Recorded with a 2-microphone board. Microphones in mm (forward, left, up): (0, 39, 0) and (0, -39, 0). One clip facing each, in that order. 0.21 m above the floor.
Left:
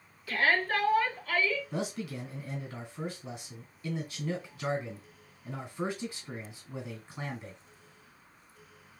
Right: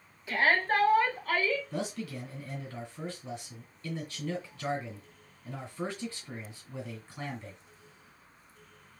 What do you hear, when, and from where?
0.3 s a shout: 20° right (ahead or behind), 1.2 m; by 1.6 s 50° right (ahead or behind), 1.9 m
1.7 s a man speaking: 15° left (ahead or behind), 1.8 m